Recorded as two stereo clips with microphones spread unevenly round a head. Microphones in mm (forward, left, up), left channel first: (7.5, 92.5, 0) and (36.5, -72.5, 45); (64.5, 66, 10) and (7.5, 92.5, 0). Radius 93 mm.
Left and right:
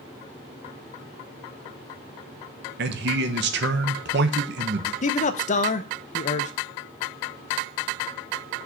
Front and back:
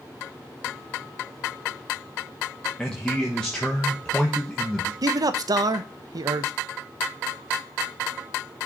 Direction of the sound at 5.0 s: 140° left.